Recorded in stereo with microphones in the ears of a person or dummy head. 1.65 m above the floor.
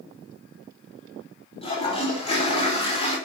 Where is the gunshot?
I don't hear a gunshot.